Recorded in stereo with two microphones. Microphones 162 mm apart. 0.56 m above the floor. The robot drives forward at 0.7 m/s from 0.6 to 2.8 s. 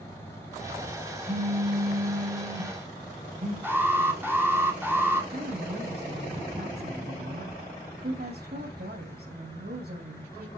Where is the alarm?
15° right (ahead or behind), 2.5 m.